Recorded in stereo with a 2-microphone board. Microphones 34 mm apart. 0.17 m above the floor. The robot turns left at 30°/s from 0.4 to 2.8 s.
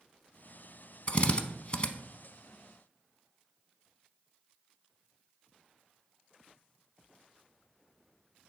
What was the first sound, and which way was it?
A drill, 35° left (ahead or behind).